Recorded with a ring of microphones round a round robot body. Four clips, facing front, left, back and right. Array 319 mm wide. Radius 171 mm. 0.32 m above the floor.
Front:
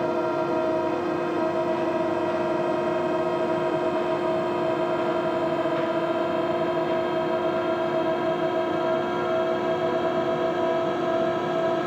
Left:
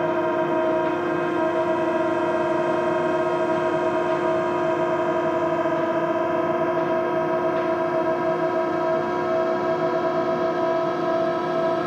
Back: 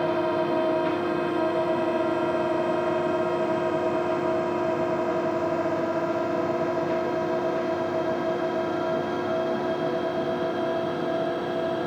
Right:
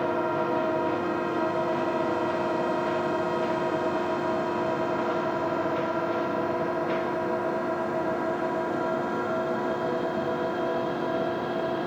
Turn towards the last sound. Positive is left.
turn(degrees=70)